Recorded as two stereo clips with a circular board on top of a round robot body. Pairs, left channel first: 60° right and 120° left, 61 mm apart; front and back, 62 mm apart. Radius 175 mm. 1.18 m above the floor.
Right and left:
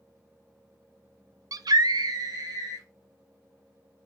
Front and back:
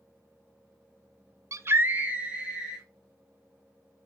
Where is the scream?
150° left, 0.5 m; by 2.9 s 105° left, 2.5 m.